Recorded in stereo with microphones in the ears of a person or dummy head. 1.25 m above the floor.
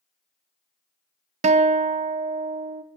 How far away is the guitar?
About 0.5 m.